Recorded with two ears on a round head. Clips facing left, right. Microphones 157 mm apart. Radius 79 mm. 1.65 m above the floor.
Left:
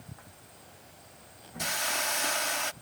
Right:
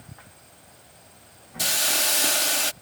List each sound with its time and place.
1.6 s a hiss: 40° right (ahead or behind)